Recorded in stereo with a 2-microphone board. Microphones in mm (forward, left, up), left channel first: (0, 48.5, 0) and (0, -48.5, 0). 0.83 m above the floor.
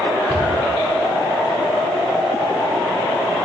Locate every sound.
0.3 s a cupboard door: 25° left (ahead or behind), 7.5 m